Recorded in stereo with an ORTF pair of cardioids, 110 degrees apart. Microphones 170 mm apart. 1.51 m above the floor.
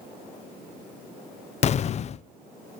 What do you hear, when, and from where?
1.6 s an explosion: 40° left, 0.7 m